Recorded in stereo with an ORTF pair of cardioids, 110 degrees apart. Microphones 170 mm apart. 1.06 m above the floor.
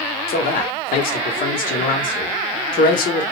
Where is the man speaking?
60° left, 1.0 m.